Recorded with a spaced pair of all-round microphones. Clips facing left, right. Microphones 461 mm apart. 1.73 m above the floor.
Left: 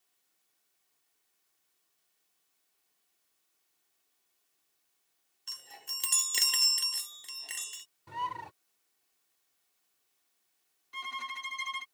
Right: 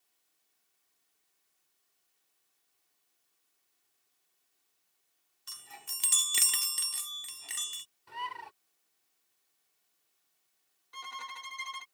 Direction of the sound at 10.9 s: 45° left (ahead or behind).